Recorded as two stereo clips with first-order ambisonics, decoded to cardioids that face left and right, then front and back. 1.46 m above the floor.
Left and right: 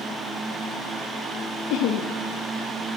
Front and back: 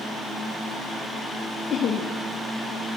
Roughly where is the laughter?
Ahead left.